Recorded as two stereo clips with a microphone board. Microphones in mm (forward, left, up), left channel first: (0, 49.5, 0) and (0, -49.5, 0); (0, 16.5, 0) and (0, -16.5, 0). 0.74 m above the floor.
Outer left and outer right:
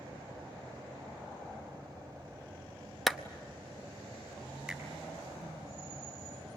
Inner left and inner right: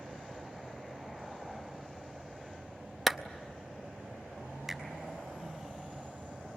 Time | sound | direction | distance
3.1 | a clap | centre (ahead or behind) | 0.7 m
4.7 | a finger snap | 5° right (ahead or behind) | 4.5 m